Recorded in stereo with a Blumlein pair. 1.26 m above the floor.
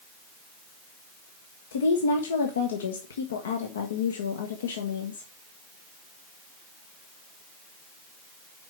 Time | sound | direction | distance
1.7 | a woman speaking | 65° left | 1.0 m